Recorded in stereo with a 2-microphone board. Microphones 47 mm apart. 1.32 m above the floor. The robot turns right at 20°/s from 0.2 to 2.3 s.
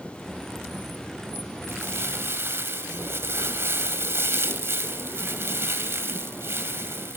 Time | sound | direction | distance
1.7 | crumpling | 70° right (ahead or behind) | 2.5 m